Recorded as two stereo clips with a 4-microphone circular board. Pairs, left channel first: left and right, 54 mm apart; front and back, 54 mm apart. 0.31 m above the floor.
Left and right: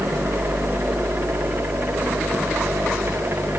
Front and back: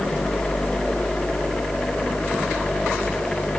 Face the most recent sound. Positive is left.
No sound to turn to.